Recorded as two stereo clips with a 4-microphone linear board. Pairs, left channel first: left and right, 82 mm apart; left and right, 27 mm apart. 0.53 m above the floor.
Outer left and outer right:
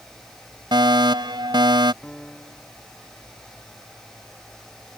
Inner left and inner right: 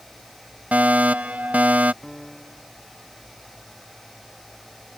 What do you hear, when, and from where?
0.7 s a fire alarm: 60° right (ahead or behind)
2.0 s a piano: 15° left (ahead or behind)